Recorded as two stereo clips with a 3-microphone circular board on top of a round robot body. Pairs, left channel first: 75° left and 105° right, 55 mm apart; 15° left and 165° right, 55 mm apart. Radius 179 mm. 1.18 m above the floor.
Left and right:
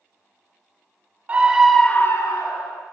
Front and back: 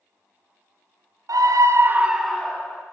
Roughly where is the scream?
Behind.